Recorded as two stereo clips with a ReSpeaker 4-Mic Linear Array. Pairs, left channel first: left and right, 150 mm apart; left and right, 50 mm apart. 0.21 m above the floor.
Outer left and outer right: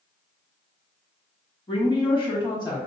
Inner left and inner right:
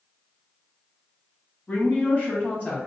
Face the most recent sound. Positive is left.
turn(degrees=25)  # may be behind; listen again after turning